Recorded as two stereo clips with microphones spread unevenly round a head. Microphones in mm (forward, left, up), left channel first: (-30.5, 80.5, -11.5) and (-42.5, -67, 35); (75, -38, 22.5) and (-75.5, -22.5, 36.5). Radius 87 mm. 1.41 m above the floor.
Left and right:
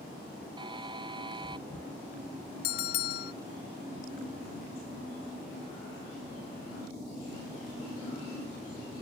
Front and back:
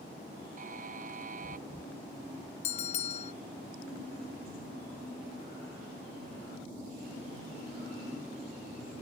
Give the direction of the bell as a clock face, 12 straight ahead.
10 o'clock.